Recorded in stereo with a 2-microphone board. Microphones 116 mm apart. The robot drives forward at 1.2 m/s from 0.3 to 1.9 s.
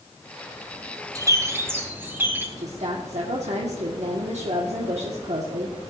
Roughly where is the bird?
Right.